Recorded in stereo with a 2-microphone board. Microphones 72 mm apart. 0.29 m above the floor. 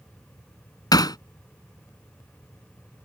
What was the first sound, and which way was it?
Hammering, 70° left (ahead or behind).